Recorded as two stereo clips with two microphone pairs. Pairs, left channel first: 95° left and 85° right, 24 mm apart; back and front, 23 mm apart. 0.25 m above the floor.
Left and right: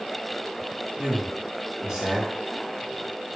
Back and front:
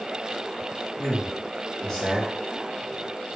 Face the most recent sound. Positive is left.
turn(degrees=-155)